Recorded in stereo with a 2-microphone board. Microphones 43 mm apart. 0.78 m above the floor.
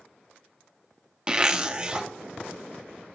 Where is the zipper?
20° right (ahead or behind), 0.5 m.